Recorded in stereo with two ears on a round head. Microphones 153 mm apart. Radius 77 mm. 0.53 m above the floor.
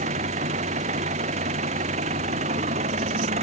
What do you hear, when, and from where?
0.0 s an engine running: 40° right (ahead or behind)